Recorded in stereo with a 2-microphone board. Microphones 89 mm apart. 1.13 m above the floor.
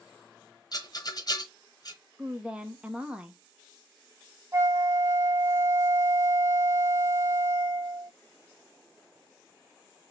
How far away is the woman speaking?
About 0.8 m.